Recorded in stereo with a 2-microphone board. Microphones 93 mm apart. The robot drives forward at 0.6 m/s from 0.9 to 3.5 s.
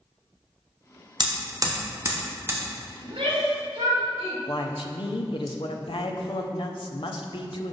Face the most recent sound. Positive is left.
turn(degrees=65)  # may be behind; listen again after turning